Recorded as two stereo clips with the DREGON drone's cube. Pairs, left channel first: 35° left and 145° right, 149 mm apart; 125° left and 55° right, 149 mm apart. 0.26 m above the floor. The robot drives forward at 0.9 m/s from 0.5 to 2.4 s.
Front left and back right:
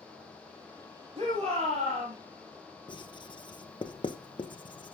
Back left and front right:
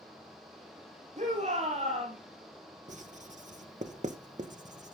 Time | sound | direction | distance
1.2 | a shout | 95° right | 7.5 m
2.9 | writing | 20° right | 1.3 m